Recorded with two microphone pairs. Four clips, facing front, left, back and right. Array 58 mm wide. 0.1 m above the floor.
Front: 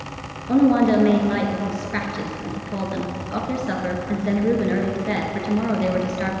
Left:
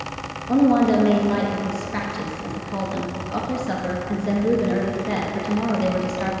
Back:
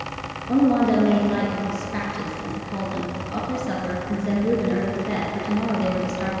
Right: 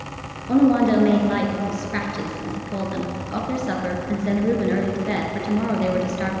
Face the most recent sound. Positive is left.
turn(degrees=-30)